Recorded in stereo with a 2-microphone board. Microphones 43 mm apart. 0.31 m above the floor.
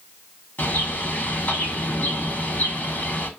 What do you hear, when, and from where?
0.6 s a bird: 50° left (ahead or behind), 0.6 m